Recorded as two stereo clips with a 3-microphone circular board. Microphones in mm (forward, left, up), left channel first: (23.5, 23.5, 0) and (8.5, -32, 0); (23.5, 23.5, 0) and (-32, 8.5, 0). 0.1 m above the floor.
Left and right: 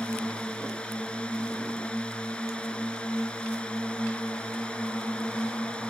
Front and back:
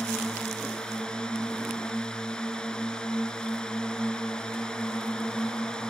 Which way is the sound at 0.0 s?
55° left.